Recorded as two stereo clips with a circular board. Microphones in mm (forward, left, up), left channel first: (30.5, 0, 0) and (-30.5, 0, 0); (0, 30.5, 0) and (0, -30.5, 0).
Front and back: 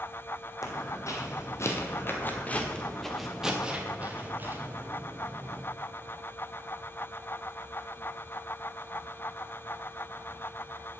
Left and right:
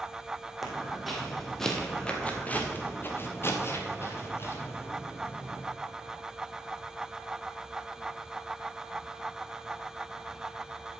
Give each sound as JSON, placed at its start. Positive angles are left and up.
{"t": 0.6, "sound": "footsteps", "azimuth_deg": -5, "distance_m": 1.8}